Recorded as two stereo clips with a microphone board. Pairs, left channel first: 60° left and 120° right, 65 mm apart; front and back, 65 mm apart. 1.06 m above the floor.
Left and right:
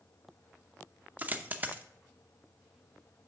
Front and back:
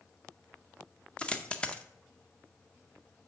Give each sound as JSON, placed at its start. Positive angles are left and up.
{"t": 1.2, "sound": "a dropped coin", "azimuth_deg": -70, "distance_m": 0.7}